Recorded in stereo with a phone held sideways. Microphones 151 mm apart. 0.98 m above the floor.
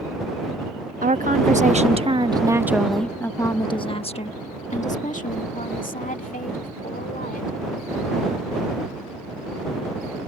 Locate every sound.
1.0 s a woman speaking: 65° right (ahead or behind); by 7.6 s 70° left (ahead or behind)